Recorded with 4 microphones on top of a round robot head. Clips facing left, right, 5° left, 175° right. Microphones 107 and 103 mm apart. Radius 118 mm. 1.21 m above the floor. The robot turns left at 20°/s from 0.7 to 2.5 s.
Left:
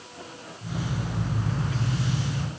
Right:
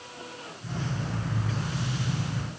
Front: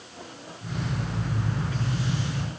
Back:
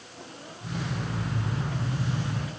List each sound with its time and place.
Only background noise.